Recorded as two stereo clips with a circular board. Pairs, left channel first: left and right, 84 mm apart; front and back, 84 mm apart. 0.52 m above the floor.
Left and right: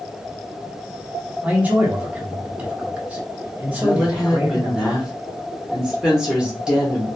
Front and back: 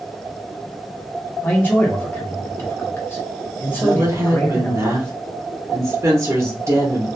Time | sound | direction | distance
1.4 | a man speaking | 35° right | 0.9 m
3.8 | a woman speaking | 165° right | 1.0 m